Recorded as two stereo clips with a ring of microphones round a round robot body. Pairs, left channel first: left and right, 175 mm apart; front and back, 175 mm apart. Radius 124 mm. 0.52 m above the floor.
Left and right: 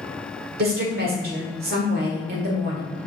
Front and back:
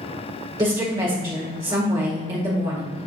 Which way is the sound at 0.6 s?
110° right.